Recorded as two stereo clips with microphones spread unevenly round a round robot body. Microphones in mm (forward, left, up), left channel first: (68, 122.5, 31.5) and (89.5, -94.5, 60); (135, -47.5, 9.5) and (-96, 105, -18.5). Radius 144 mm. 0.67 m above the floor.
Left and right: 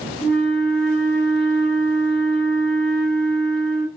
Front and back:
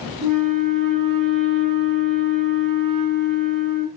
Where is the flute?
160° left, 1.0 m.